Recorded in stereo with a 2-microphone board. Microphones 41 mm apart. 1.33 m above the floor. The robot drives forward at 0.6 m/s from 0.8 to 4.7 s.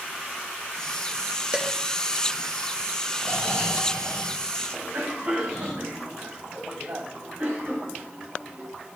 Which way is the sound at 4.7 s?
55° right (ahead or behind).